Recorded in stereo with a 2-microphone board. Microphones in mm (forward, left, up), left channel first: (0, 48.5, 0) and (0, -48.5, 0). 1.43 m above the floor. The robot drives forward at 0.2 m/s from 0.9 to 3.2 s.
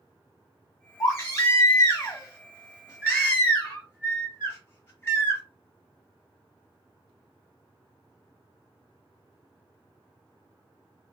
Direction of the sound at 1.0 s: 30° left (ahead or behind).